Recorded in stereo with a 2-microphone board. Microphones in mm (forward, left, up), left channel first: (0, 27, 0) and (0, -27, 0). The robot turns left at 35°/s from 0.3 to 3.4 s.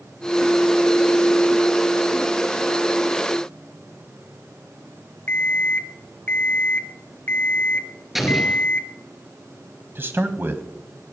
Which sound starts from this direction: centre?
An explosion, at 8.2 s.